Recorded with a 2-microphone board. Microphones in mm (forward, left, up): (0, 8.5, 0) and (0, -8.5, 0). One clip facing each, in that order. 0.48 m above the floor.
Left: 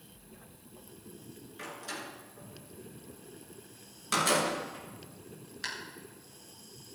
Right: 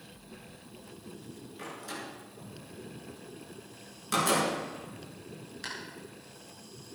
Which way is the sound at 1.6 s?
10° left (ahead or behind).